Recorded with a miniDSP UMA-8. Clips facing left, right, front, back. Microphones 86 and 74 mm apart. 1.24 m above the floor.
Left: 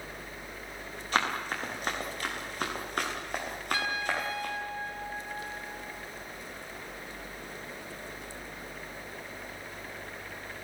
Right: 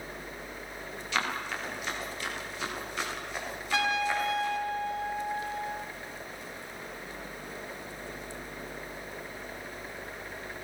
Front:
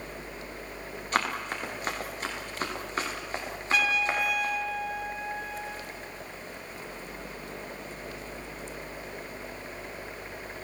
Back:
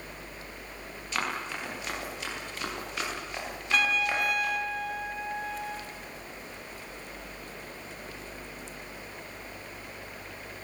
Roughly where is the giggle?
No giggle in this recording.